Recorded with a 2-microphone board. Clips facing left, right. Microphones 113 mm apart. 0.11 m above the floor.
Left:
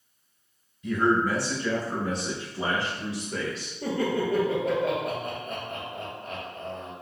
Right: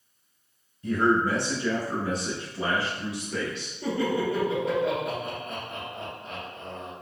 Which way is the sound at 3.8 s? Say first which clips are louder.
Even; 50° left (ahead or behind).